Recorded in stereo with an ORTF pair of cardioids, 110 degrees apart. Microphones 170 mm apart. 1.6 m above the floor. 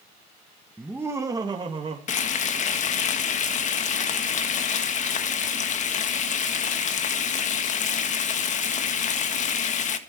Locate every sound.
0.8 s laughter: 5° right, 1.9 m; by 2.0 s 35° right, 3 m
2.1 s frying: 50° left, 1.8 m